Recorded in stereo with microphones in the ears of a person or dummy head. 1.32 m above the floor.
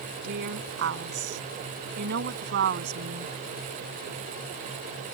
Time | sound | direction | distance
0.2 | a woman speaking | 65° right (ahead or behind) | ?